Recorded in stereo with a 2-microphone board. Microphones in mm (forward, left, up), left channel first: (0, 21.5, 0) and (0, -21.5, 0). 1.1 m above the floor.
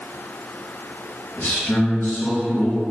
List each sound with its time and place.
1.4 s a man speaking: 45° left (ahead or behind), 1.6 m